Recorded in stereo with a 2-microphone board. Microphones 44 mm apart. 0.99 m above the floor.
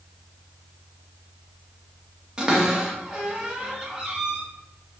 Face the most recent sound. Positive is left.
turn(degrees=-20)  # may be behind; listen again after turning